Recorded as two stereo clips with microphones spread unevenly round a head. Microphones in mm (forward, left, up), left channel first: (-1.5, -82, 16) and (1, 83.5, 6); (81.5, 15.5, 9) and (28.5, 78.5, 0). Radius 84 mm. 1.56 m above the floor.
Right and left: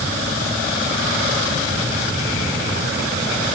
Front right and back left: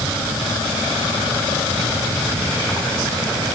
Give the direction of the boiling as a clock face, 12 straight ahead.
No boiling in this recording.